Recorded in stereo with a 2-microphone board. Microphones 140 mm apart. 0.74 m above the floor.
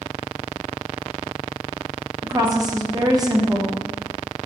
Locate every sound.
2.2 s a woman speaking: 25° right (ahead or behind), 1.0 m